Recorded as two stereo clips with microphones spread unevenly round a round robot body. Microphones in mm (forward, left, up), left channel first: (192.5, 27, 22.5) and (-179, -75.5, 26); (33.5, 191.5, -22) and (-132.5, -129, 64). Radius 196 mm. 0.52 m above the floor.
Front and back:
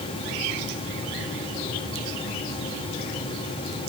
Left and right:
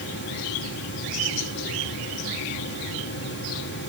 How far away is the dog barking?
I don't hear a dog barking.